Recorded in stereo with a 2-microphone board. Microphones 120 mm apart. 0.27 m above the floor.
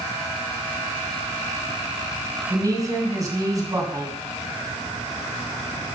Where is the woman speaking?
30° right (ahead or behind), 1.9 m.